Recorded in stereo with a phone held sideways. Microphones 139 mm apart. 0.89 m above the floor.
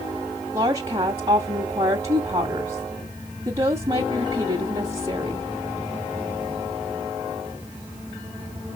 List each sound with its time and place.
0.5 s a woman speaking: 35° right (ahead or behind), 1.7 m